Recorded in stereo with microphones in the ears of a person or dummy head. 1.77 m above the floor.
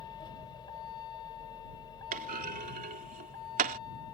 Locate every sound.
0.0 s a vehicle: 25° left (ahead or behind)
2.1 s a clunk: 45° right (ahead or behind)